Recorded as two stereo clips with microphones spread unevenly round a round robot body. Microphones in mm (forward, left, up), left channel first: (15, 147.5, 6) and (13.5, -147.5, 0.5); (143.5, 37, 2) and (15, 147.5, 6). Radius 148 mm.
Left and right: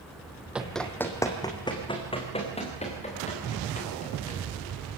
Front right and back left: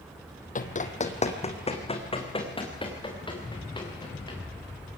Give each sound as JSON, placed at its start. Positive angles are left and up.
{"t": 0.6, "sound": "running footsteps", "azimuth_deg": -5, "distance_m": 1.8}